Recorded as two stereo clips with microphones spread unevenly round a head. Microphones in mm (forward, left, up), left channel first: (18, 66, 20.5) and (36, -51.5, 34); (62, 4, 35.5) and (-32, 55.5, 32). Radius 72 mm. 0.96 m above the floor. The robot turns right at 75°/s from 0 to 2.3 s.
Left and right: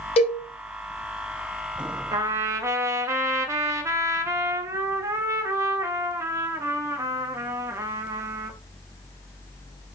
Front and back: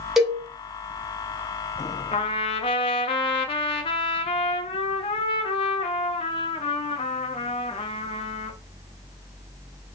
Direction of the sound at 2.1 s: 45° right.